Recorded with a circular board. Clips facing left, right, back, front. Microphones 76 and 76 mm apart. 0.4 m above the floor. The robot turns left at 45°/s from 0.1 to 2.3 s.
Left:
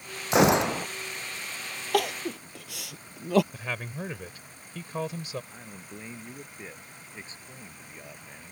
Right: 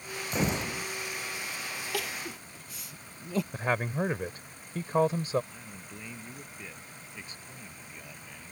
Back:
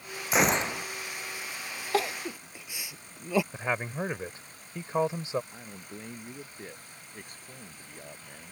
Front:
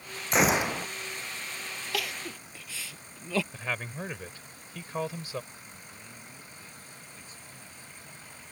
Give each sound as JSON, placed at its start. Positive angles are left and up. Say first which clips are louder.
{"t": 0.3, "sound": "a gunshot", "louder": "left 10 dB, front 1 dB", "azimuth_deg": 95}
{"t": 1.9, "sound": "crying", "louder": "left 12 dB, back 7 dB", "azimuth_deg": 120}
{"t": 3.5, "sound": "a man speaking", "louder": "right 6 dB, back 4 dB", "azimuth_deg": -125}
{"t": 5.5, "sound": "a man speaking", "louder": "left 2 dB, back 5 dB", "azimuth_deg": 150}